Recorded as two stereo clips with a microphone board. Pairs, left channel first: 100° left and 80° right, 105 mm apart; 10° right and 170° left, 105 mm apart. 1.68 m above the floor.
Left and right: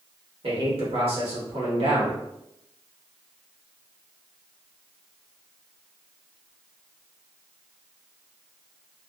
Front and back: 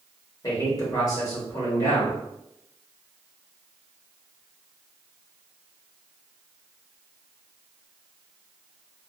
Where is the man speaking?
65° right, 1.2 m.